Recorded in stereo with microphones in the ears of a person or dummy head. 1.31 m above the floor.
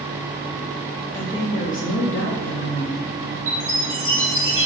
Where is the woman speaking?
10° left (ahead or behind), 0.7 m; by 3.1 s 55° left (ahead or behind), 0.8 m.